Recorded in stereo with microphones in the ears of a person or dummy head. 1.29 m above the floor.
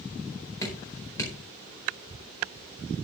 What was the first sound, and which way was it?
Dripping, 15° left (ahead or behind).